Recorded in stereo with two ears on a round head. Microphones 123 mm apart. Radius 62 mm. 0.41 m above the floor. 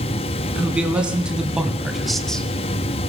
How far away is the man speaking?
About 3.5 m.